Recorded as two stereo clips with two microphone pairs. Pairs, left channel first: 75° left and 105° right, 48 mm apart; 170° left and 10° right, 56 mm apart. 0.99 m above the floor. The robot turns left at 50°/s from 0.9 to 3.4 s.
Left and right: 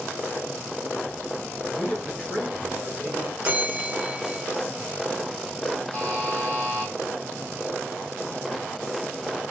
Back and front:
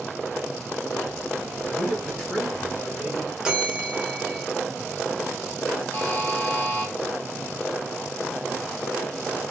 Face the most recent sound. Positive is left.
turn(degrees=120)